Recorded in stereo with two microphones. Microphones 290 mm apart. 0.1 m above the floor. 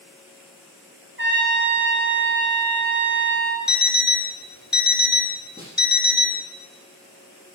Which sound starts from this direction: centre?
A snare drum, at 5.6 s.